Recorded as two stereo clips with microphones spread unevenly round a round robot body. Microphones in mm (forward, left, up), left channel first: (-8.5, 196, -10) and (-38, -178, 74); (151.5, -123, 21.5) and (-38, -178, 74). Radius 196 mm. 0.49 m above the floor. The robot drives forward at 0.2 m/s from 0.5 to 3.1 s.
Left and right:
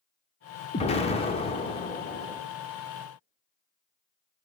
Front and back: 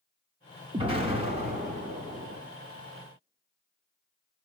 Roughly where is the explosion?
Behind left.